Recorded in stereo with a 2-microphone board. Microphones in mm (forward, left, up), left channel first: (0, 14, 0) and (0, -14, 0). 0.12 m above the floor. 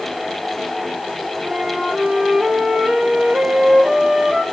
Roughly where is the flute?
Right.